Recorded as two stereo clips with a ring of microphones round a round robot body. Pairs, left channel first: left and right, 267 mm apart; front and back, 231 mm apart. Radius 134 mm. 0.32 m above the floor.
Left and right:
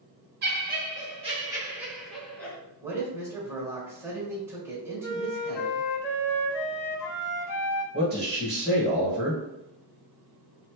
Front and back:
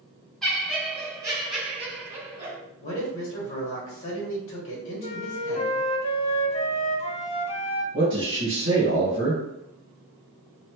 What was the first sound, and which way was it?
Laughter, 85° right.